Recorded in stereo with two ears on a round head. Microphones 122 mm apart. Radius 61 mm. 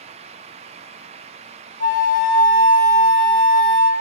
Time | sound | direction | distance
1.8 | a flute | 65° left (ahead or behind) | 0.6 m